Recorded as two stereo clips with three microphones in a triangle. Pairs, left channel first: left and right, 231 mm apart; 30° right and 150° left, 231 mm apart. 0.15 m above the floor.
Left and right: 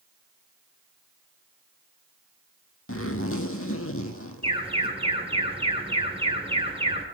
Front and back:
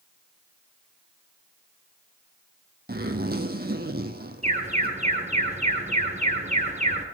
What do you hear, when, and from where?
2.9 s a zipper: 105° left, 1.0 m
4.4 s an alarm: 150° right, 2 m